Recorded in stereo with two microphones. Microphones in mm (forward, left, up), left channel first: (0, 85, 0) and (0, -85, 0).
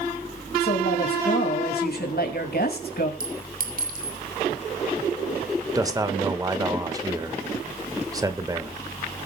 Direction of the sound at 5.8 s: 20° right (ahead or behind).